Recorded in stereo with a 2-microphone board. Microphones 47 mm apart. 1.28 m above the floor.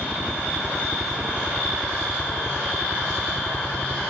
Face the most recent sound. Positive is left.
turn(degrees=-40)  # may be behind; listen again after turning